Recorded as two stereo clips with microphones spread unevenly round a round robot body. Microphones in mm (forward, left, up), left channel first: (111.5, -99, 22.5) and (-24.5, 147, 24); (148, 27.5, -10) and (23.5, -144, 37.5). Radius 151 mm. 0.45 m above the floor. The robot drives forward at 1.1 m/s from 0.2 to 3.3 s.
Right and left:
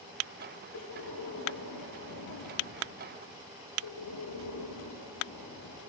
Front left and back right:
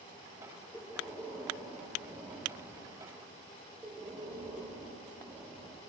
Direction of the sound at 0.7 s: 25° right.